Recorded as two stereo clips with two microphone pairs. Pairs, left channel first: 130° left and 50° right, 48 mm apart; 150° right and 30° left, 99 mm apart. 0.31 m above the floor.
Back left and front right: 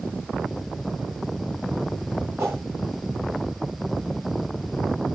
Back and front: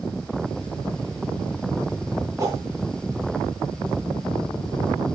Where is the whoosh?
25° right, 9.5 m.